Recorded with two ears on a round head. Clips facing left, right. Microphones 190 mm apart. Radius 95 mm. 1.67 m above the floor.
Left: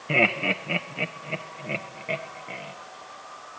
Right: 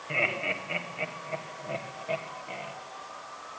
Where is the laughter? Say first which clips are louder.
Left 8 dB; 80° left, 1.6 m; by 2.7 s 20° left (ahead or behind), 2 m.